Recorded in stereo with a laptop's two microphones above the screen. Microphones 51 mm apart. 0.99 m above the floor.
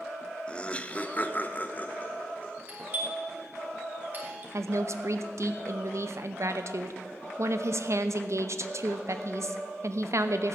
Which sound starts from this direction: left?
Laughter, at 0.5 s.